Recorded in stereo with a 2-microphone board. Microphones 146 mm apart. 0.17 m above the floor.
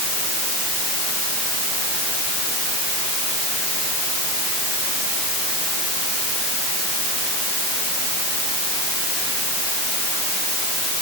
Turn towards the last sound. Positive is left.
No sound to turn to.